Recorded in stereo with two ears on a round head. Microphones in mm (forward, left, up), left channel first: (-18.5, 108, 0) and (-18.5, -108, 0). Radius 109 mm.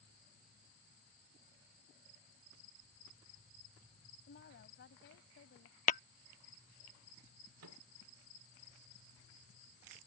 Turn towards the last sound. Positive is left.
turn(degrees=-70)  # may be behind; listen again after turning